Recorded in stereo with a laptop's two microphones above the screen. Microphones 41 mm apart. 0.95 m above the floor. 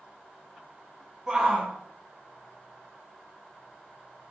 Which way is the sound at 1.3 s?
20° right (ahead or behind).